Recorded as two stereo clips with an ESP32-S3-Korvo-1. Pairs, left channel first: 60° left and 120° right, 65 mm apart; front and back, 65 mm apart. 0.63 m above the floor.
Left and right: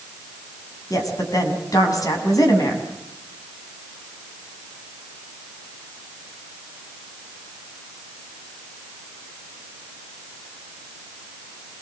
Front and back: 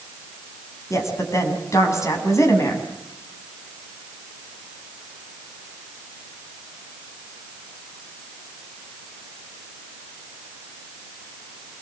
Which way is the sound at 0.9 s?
40° left.